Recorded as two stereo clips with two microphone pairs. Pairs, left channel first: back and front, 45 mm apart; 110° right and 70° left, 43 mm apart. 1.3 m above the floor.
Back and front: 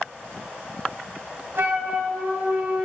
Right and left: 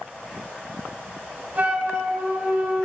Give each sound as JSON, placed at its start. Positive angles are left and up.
{"t": 1.6, "sound": "a flute", "azimuth_deg": 25, "distance_m": 2.5}